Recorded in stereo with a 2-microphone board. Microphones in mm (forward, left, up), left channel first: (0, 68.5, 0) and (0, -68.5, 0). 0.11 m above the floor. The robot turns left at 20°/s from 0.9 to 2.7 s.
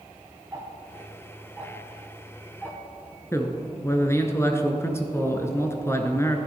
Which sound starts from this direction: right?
Ticking, at 0.5 s.